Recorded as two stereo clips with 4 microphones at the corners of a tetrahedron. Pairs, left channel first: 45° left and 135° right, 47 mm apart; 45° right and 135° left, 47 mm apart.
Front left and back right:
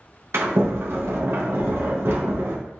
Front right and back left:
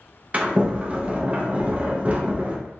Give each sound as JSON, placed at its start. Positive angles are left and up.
{"t": 0.3, "sound": "a sliding door", "azimuth_deg": -165, "distance_m": 0.5}